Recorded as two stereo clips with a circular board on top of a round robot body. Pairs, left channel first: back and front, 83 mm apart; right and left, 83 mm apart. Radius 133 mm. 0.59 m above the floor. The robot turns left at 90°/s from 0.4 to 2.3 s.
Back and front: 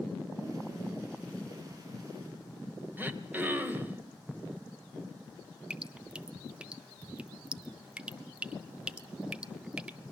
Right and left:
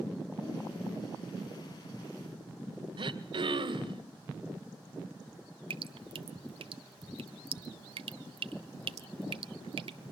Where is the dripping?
75° left, 0.7 m.